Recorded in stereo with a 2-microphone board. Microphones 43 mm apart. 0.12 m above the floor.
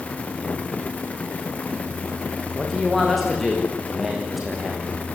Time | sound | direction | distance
2.6 | a man speaking | 5° left (ahead or behind) | 8.5 m